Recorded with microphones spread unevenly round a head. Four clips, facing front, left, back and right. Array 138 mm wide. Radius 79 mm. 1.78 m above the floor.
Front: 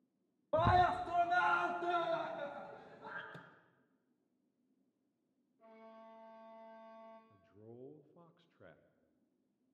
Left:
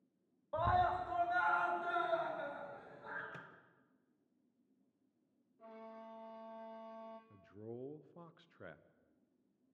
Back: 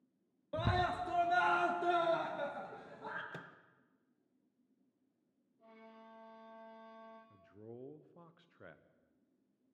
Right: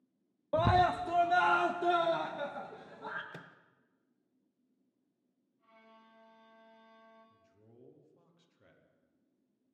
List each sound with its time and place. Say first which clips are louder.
0.5 s a scream: right 6 dB, front 5 dB; 70° right, 0.6 m; by 3.2 s 125° right, 3 m
3.3 s a microwave: right 2 dB, back 5 dB; 160° right, 1.1 m
5.6 s a violin: left 9 dB, front 1 dB; 100° left, 3.5 m
7.3 s a man speaking: left 13 dB, back 4 dB; 135° left, 1.3 m